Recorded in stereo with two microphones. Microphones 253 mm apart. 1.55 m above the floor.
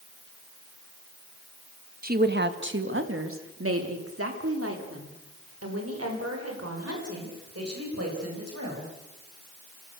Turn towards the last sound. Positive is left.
turn(degrees=-75)  # may be behind; listen again after turning